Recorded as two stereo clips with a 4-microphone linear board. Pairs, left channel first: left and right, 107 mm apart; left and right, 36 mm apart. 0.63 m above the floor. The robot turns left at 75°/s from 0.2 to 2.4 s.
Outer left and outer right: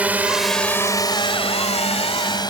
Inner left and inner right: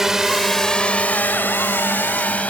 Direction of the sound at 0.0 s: 15° right (ahead or behind).